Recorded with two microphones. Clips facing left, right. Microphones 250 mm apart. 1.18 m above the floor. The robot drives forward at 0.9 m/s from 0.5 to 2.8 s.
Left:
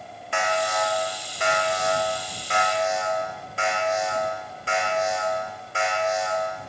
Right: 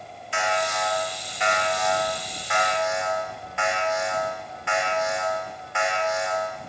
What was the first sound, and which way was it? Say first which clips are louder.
An alarm: left 2 dB; 65° left (ahead or behind).